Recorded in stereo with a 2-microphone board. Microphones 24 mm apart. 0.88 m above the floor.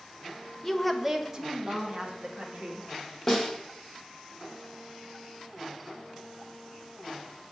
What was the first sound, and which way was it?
A woman speaking, 10° left (ahead or behind).